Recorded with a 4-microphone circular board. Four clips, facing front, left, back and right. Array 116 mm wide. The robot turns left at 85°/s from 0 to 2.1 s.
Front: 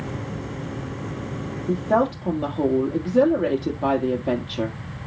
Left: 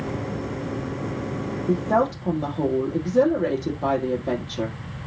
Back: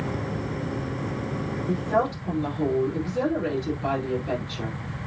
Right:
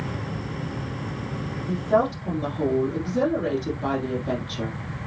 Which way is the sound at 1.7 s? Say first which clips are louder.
Left 1 dB, front 4 dB; 60° left.